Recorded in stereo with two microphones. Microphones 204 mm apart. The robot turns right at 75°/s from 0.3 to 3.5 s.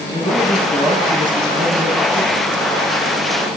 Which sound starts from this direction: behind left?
A man speaking, at 0.1 s.